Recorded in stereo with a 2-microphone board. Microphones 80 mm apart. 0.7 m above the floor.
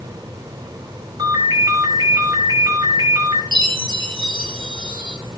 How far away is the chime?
About 3 m.